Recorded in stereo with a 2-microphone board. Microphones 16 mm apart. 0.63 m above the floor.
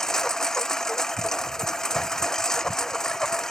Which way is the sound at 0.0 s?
30° left (ahead or behind).